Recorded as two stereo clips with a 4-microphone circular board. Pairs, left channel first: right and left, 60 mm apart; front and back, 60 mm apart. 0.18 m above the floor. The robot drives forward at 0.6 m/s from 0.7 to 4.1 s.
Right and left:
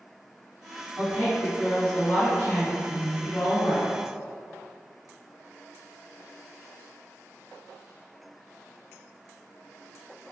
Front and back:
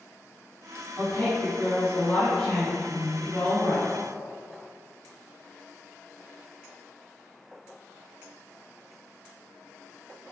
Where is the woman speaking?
25° right, 1.9 m; by 3.9 s 130° right, 1.5 m.